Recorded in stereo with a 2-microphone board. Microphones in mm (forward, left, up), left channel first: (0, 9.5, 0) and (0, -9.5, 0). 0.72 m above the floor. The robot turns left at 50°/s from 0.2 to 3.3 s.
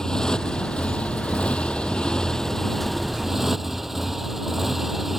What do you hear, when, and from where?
0.0 s a motorcycle: 140° left; by 5.2 s 15° right